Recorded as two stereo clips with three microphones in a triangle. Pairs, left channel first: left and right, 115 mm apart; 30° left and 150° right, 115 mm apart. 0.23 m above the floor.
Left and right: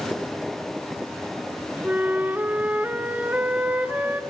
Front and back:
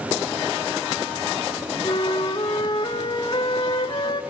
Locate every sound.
1.8 s a flute: 15° right, 1.0 m